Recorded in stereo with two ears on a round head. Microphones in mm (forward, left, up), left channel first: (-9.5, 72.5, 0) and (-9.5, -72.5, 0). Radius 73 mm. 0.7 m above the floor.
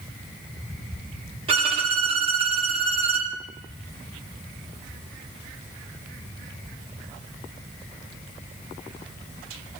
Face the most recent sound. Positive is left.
turn(degrees=-35)  # may be behind; listen again after turning